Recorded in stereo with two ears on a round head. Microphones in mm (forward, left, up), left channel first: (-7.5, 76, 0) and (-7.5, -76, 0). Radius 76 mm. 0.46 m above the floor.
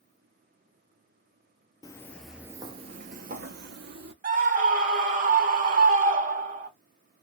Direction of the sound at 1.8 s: 20° left (ahead or behind).